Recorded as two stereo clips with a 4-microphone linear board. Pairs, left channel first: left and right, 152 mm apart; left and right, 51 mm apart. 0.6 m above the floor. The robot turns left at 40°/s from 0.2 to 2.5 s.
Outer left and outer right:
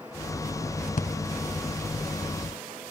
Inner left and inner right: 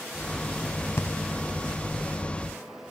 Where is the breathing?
55° left (ahead or behind), 0.6 m.